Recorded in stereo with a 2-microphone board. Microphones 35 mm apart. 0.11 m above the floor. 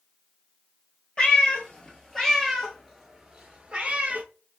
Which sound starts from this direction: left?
A cat meowing, at 1.2 s.